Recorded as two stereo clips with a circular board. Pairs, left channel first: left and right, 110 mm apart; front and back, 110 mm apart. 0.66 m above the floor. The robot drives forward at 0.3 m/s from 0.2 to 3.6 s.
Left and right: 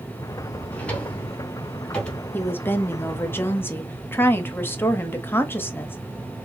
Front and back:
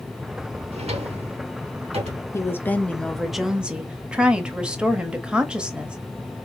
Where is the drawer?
165° left, 1.1 m; by 2.2 s 170° left, 1.5 m.